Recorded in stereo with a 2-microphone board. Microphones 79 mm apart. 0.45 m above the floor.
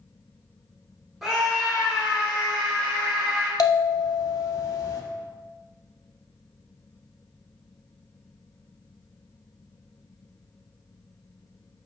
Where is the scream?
5° right (ahead or behind), 1.1 m.